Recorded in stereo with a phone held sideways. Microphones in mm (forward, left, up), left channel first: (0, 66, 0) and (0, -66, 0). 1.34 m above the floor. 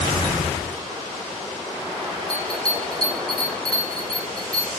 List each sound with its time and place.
2.3 s a bell: 30° right (ahead or behind), 1.2 m